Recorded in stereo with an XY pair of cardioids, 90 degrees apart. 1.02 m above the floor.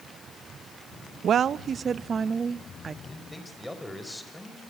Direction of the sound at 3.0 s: 15° left.